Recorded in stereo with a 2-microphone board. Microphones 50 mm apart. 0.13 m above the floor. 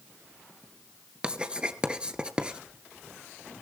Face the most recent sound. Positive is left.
turn(degrees=-20)  # may be behind; listen again after turning